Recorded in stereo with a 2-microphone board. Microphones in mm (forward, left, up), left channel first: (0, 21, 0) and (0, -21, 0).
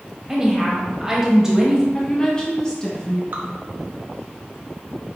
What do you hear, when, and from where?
0.3 s a woman speaking: 10° right (ahead or behind), 1.1 m
1.9 s a woman speaking: 20° left (ahead or behind), 1.0 m
3.3 s dripping: 45° right (ahead or behind), 0.9 m